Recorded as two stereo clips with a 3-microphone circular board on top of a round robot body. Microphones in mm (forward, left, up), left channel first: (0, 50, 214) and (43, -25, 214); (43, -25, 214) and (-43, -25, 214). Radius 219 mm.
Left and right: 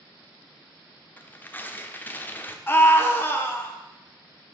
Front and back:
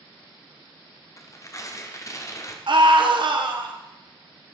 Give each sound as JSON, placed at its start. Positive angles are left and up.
{"t": 1.2, "sound": "tearing paper", "azimuth_deg": 50, "distance_m": 1.0}
{"t": 2.7, "sound": "a scream", "azimuth_deg": 180, "distance_m": 1.7}